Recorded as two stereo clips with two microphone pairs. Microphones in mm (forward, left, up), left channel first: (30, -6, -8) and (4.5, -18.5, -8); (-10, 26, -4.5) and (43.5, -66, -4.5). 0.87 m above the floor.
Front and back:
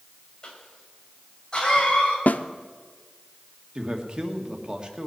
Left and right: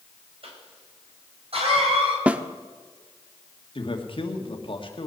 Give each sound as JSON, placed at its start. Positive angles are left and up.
{"t": 0.4, "sound": "a cough", "azimuth_deg": -35, "distance_m": 5.0}
{"t": 2.3, "sound": "a snare drum", "azimuth_deg": 15, "distance_m": 0.7}
{"t": 3.8, "sound": "a man speaking", "azimuth_deg": 150, "distance_m": 1.8}